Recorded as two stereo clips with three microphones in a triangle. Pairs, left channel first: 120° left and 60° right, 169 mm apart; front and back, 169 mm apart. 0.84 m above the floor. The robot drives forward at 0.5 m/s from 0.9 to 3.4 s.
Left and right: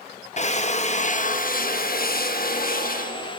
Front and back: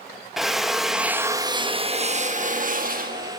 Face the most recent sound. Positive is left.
turn(degrees=155)